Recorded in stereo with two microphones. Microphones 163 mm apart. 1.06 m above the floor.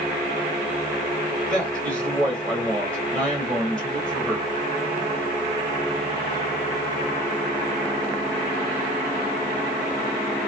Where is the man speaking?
5° left (ahead or behind), 1.9 m.